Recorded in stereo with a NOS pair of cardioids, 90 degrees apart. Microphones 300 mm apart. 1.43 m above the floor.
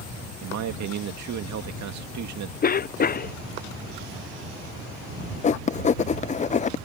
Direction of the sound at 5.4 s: 25° left.